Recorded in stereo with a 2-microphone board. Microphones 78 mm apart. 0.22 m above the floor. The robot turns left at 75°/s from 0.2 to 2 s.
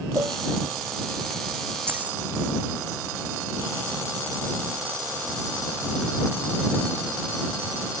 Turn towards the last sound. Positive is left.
turn(degrees=-20)  # may be behind; listen again after turning